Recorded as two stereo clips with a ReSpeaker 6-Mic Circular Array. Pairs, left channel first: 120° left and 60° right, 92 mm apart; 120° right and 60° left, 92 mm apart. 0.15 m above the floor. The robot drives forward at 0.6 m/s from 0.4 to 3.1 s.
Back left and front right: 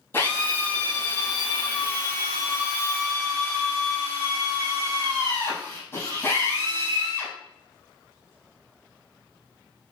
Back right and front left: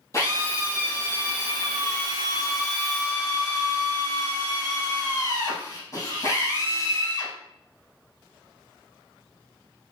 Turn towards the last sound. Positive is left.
turn(degrees=180)